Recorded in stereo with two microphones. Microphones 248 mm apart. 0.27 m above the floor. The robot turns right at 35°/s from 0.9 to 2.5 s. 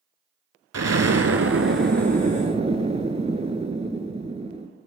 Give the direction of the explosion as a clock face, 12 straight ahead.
3 o'clock.